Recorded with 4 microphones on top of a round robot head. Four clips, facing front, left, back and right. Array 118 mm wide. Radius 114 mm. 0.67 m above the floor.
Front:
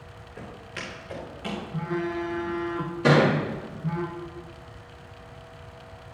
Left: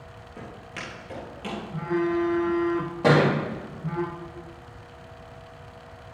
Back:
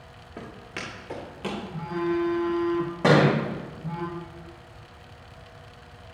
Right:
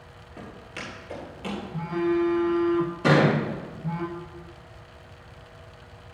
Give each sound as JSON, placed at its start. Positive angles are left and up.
{"t": 0.4, "sound": "footsteps", "azimuth_deg": 160, "distance_m": 3.5}
{"t": 1.7, "sound": "a phone buzzing", "azimuth_deg": 65, "distance_m": 1.7}
{"t": 3.0, "sound": "a thud", "azimuth_deg": 140, "distance_m": 3.0}